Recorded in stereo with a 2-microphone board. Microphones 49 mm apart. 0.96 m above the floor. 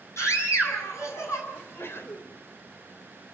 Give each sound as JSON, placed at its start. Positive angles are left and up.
{"t": 0.2, "sound": "a scream", "side_deg": 85, "distance_m": 8.0}
{"t": 1.5, "sound": "a sneeze", "side_deg": 60, "distance_m": 4.0}